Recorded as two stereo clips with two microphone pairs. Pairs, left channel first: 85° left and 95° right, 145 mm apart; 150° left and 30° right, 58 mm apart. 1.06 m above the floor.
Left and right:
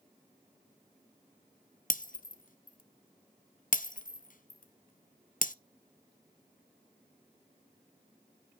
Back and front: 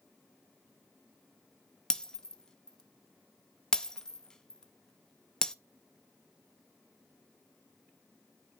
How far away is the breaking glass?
About 0.6 m.